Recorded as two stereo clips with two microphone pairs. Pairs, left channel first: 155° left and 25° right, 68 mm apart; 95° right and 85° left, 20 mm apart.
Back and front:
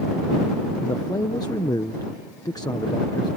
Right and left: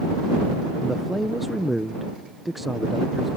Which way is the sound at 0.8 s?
170° left.